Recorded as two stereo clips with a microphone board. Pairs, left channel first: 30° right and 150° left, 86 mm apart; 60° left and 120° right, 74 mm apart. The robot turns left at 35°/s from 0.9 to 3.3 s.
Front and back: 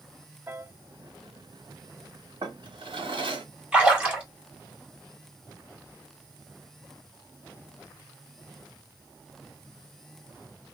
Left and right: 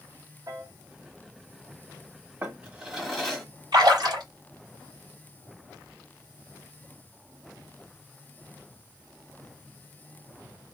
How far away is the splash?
About 2.5 m.